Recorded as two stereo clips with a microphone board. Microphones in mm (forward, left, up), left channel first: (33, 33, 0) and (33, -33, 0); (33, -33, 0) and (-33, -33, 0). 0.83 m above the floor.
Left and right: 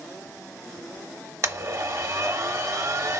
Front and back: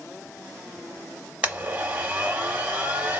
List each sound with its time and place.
1.4 s a blender: 120° right, 1.0 m